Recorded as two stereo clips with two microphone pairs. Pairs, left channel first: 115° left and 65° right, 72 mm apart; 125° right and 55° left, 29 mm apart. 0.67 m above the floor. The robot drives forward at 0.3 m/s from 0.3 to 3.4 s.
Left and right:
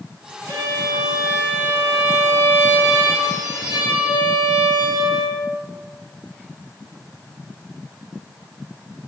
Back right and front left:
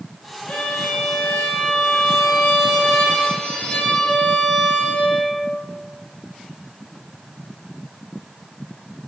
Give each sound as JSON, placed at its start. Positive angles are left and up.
{"t": 0.5, "sound": "a violin", "azimuth_deg": -95, "distance_m": 0.9}